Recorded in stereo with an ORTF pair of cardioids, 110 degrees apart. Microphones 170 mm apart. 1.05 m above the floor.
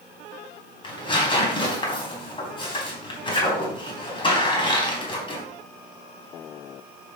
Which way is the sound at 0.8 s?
30° left.